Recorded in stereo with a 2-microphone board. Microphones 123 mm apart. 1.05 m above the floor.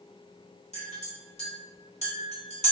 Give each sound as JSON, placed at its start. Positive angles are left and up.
{"t": 0.7, "sound": "a clink", "side_deg": 65, "distance_m": 1.2}